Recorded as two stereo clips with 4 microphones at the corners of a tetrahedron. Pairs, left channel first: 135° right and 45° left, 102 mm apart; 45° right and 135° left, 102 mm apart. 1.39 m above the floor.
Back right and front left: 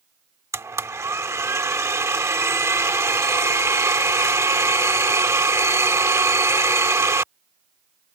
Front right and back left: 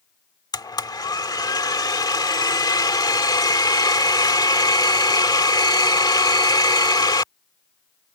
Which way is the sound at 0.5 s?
10° right.